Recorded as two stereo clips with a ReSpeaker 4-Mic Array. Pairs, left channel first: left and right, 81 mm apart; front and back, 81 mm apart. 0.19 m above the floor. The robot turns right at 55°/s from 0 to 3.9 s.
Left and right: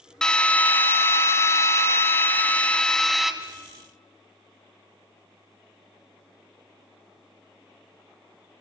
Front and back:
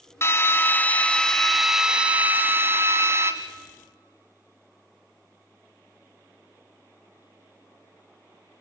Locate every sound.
0.2 s a drill: 15° left, 1.4 m; by 3.3 s 175° right, 1.4 m